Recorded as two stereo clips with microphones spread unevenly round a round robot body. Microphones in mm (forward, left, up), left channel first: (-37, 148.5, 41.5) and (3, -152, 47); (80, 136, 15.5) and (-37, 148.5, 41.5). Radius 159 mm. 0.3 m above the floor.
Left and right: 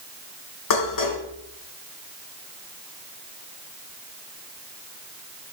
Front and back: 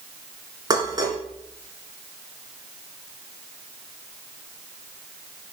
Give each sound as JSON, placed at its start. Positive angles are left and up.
{"t": 0.7, "sound": "dishes clattering", "azimuth_deg": 115, "distance_m": 3.0}